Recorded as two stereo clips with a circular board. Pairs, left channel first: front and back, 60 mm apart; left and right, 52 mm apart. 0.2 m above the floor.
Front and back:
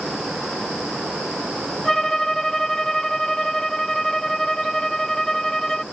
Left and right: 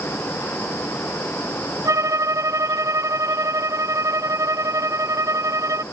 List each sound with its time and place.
1.9 s a violin: 85° right